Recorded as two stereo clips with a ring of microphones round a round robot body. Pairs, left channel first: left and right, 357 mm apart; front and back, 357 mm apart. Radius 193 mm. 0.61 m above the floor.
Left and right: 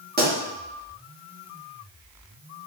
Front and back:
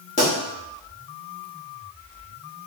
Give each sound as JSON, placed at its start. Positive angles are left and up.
{"t": 0.2, "sound": "a pop", "azimuth_deg": -55, "distance_m": 1.3}